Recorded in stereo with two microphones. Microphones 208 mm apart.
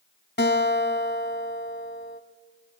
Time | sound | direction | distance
0.4 | a guitar | 65° left (ahead or behind) | 1.4 m